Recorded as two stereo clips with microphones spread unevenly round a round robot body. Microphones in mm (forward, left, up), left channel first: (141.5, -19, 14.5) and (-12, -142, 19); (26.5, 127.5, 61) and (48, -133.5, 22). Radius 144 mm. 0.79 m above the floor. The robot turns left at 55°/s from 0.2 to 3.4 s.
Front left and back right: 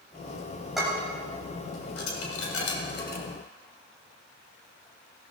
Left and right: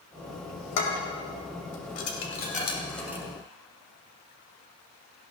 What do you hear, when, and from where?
0.8 s dishes clattering: 130° left, 2.5 m; by 3.2 s 5° right, 2.5 m